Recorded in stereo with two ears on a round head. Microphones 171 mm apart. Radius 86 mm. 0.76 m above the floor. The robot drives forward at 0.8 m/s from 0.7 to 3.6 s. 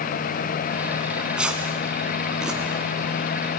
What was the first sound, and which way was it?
Tearing paper, 5° right (ahead or behind).